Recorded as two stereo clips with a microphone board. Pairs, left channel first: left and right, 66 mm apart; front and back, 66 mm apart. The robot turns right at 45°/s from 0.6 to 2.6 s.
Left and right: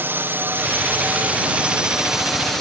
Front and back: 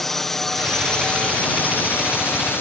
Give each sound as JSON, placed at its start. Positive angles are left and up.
{"t": 0.0, "sound": "a drone", "azimuth_deg": -80}